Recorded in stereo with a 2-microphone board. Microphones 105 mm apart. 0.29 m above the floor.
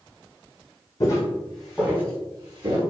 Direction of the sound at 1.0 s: 35° left (ahead or behind).